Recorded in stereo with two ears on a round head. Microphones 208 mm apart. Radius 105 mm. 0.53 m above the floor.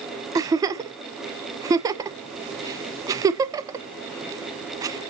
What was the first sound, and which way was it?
A giggle, 15° right (ahead or behind).